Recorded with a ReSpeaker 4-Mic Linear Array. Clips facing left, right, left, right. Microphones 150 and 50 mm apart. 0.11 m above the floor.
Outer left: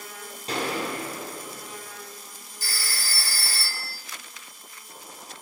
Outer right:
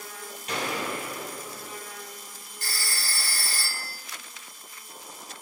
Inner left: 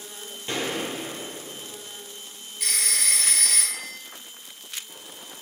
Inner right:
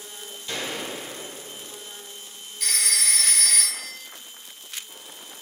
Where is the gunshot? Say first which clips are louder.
Outer left 2 dB, inner left 3 dB; 30° left (ahead or behind), 1.3 m.